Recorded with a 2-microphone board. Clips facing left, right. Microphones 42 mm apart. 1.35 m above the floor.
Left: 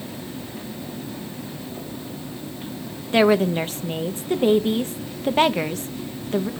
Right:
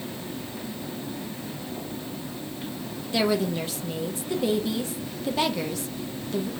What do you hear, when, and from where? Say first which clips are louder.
3.1 s a woman speaking: left 7 dB; 45° left (ahead or behind), 0.7 m